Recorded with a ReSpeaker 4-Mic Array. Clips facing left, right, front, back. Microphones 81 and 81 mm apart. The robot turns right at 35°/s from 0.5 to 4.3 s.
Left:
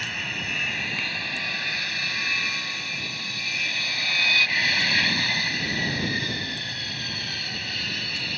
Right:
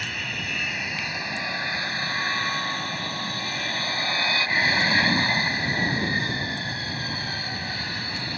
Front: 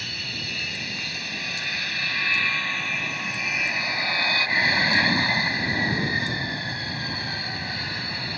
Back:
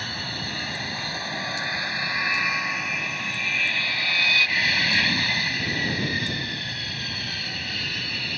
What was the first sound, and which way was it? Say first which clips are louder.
An aircraft: even, back 4 dB; straight behind.